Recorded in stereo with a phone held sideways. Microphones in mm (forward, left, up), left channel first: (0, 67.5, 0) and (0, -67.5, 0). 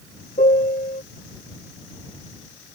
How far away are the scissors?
No scissors in this recording.